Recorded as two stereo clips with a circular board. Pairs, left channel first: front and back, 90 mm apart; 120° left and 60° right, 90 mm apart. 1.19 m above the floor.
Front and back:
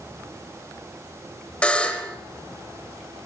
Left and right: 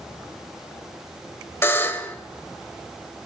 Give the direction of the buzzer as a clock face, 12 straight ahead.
10 o'clock.